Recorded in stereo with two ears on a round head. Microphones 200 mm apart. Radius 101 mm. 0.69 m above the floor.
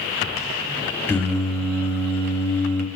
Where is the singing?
10° left (ahead or behind), 3.5 m.